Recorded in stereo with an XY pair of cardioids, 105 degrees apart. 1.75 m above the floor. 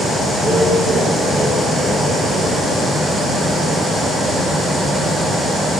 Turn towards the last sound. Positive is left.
turn(degrees=-30)